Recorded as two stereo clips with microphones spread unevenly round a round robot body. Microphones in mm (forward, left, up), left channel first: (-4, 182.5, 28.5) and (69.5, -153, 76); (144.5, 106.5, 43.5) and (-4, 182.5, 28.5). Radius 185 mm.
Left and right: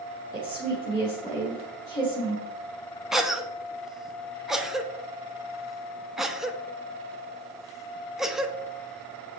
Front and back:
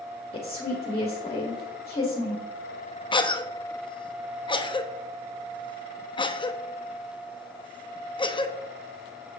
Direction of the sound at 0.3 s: 30° left.